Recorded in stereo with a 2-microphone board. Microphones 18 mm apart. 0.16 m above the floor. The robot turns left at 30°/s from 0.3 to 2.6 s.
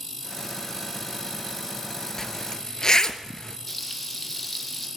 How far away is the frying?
About 4 m.